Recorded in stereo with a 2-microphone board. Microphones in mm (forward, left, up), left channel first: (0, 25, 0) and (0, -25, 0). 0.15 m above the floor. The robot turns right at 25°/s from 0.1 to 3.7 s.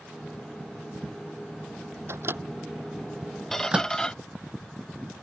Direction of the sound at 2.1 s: 55° right (ahead or behind).